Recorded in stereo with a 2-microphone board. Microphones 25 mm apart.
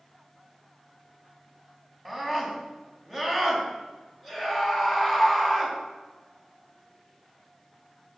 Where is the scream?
20° right (ahead or behind), 5.5 m.